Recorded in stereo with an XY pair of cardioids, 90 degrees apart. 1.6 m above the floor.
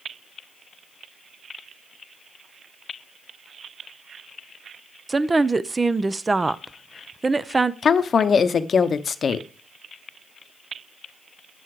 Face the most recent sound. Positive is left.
turn(degrees=50)